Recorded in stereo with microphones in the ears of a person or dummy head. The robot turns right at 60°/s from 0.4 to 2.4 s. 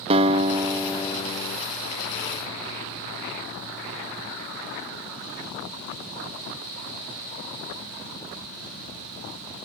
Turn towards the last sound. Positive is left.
turn(degrees=85)